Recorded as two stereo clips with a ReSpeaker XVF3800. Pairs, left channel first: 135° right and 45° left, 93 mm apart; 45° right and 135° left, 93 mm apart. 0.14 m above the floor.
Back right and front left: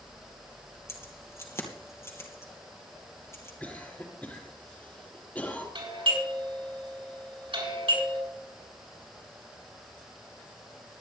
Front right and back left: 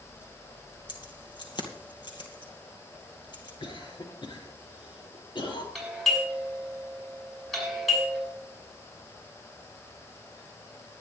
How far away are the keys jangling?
About 2.5 m.